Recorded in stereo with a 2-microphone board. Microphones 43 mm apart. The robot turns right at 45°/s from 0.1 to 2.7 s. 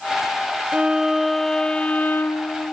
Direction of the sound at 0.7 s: 25° right.